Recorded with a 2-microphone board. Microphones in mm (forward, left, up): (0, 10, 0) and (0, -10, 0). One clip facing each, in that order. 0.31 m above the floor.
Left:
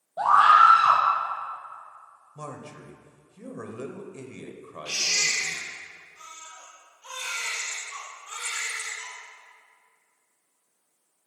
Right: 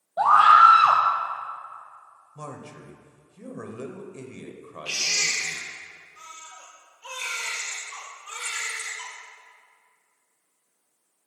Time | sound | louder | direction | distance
0.2 | a scream | right 2 dB | 35° right (ahead or behind) | 1.5 m
2.4 | a man speaking | even | 10° left (ahead or behind) | 0.9 m
4.8 | a baby crying | even | 75° right (ahead or behind) | 3.5 m